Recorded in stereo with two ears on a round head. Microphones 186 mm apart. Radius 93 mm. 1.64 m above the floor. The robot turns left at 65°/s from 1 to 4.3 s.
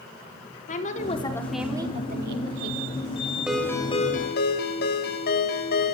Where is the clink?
I don't hear a clink.